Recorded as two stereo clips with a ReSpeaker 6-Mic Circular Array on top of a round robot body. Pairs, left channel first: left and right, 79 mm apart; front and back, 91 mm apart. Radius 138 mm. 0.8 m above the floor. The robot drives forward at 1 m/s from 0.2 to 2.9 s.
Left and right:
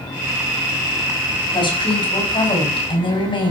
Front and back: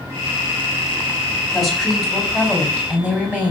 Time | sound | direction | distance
1.5 | a woman speaking | 90° left | 5.5 m